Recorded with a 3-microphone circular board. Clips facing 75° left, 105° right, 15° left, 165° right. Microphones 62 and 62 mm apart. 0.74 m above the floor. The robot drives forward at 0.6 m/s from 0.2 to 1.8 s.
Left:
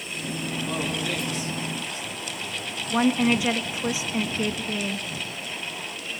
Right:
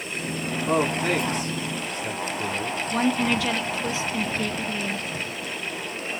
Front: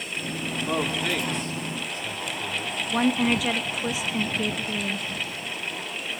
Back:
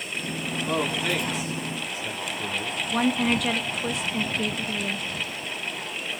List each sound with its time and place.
0.7 s a man speaking: 70° right, 2.5 m; by 2.8 s 90° right, 2 m
2.9 s a woman speaking: 90° left, 1.0 m